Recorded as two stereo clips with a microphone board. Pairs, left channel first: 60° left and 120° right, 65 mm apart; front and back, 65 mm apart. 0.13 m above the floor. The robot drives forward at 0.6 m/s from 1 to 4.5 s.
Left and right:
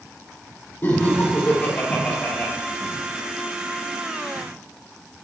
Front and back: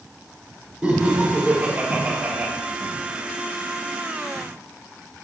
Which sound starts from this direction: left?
Laughter, at 0.8 s.